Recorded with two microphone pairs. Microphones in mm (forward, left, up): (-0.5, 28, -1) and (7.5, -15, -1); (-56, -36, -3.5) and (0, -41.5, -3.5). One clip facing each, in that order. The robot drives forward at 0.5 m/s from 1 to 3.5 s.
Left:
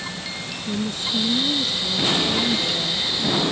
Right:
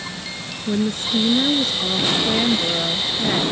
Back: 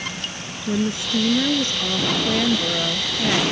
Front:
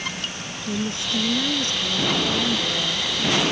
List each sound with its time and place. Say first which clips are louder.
0.7 s a woman speaking: right 5 dB, back 4 dB; 120° right; by 3.4 s 130° right